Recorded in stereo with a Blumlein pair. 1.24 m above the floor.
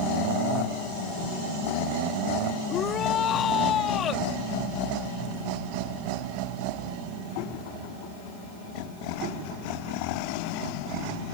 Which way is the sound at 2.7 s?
25° left.